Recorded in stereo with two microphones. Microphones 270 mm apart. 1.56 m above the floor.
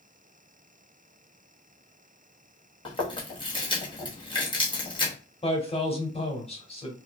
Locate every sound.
2.9 s chewing: 20° left (ahead or behind), 0.9 m
5.4 s a man speaking: 20° left (ahead or behind), 0.8 m